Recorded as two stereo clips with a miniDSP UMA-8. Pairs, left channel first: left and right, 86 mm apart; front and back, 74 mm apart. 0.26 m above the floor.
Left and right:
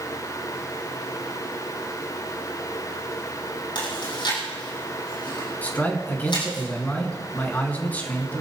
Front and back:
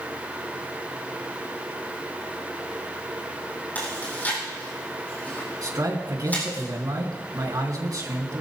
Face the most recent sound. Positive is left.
turn(degrees=160)